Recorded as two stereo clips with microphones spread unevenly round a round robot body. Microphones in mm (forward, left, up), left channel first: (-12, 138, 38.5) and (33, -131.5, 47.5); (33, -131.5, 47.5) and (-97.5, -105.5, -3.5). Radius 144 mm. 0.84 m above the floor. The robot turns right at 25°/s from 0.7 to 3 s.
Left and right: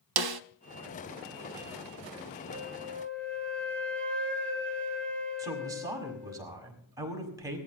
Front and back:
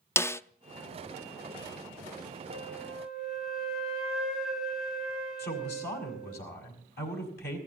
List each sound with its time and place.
0.2 s a snare drum: 80° right, 0.5 m
2.5 s a flute: straight ahead, 3 m; by 6.4 s 15° left, 3 m
5.4 s a woman speaking: straight ahead, 6 m